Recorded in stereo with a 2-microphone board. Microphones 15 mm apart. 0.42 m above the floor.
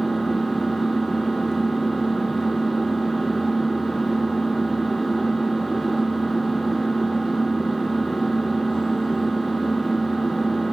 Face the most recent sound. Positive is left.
turn(degrees=35)  # may be behind; listen again after turning